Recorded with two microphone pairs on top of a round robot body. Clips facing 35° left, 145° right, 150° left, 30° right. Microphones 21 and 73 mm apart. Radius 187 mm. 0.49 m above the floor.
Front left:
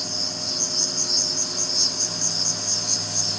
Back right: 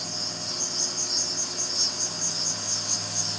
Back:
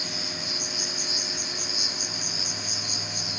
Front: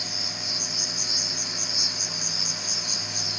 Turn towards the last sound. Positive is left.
turn(degrees=95)